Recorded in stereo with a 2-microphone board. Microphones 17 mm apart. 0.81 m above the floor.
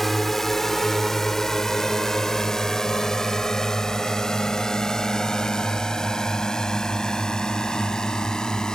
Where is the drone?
15° left (ahead or behind); by 8.8 s 45° left (ahead or behind).